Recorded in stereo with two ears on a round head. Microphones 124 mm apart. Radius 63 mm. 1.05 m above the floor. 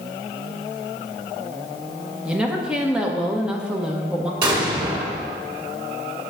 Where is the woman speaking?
5° right (ahead or behind), 1.1 m.